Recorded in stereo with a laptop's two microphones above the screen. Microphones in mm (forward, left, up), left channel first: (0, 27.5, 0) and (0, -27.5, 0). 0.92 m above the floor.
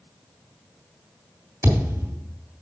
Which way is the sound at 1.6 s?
65° right (ahead or behind).